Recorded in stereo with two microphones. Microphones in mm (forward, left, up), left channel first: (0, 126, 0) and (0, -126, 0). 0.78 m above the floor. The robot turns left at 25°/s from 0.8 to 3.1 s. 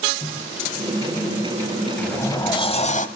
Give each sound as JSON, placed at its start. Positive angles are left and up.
{"t": 0.2, "sound": "a microwave", "side_deg": 5, "distance_m": 6.0}
{"t": 2.0, "sound": "a sliding door", "side_deg": 5, "distance_m": 1.3}